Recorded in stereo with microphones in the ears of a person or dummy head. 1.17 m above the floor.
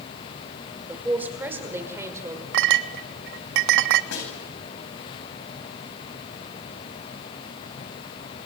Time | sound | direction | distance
0.9 | a man speaking | 10° right (ahead or behind) | 4.5 m
2.5 | a clink | 60° right (ahead or behind) | 1.0 m
4.1 | a snare drum | 60° left (ahead or behind) | 9 m